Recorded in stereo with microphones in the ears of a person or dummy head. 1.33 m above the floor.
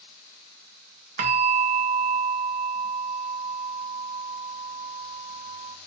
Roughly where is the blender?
I don't hear a blender.